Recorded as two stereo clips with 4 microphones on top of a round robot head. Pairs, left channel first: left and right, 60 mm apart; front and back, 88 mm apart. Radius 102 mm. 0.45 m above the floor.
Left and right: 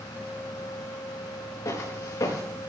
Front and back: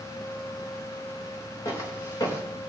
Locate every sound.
1.6 s footsteps: 45° left, 4.5 m